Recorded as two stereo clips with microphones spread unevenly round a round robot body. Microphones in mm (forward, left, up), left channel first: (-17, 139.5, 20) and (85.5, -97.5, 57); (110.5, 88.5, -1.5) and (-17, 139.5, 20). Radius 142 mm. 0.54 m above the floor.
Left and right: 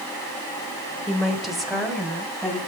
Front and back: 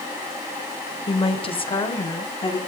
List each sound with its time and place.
1.1 s a woman speaking: 25° left, 1.9 m